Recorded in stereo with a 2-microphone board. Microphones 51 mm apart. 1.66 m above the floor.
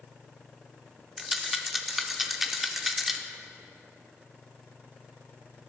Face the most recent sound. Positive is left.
turn(degrees=-5)  # may be behind; listen again after turning